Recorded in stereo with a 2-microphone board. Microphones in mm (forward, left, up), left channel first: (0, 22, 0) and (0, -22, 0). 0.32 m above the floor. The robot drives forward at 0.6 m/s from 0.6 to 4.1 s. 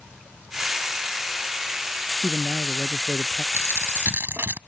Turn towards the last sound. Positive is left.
turn(degrees=-55)  # may be behind; listen again after turning